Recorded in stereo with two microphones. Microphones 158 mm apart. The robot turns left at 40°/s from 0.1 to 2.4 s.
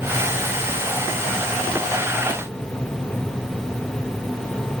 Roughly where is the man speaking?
I don't hear a man speaking.